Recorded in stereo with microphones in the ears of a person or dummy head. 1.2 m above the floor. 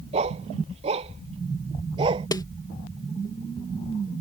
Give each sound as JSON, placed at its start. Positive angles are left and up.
{"t": 0.1, "sound": "a dog barking", "side_deg": -35}
{"t": 2.3, "sound": "a snare drum", "side_deg": 15}